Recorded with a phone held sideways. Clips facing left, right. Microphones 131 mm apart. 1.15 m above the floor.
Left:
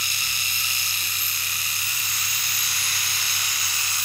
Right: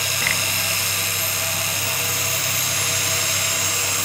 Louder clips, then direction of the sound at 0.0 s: Right 10 dB; 80° right.